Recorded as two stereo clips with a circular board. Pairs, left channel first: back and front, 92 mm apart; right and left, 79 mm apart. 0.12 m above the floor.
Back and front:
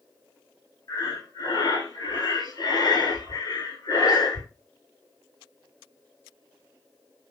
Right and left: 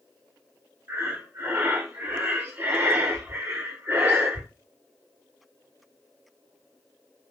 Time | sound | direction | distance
0.9 | breathing | 145° left | 0.7 m